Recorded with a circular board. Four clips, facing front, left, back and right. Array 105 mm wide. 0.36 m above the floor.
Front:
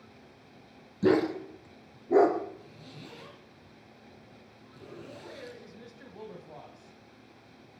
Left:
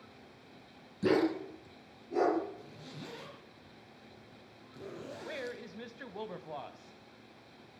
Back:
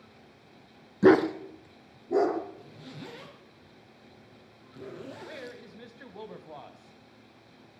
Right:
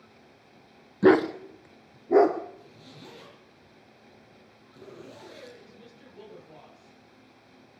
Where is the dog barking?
135° right, 1.1 m; by 2.4 s 70° right, 2 m.